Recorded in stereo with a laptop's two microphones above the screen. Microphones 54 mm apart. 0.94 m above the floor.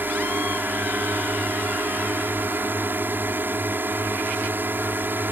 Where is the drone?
40° right (ahead or behind).